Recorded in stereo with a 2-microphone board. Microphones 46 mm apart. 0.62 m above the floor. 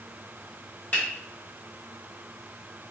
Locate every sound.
0.9 s a finger snap: 40° left (ahead or behind), 1.4 m